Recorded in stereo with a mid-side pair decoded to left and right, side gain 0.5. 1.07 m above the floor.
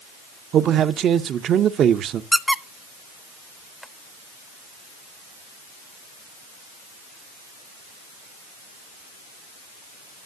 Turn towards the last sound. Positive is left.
turn(degrees=5)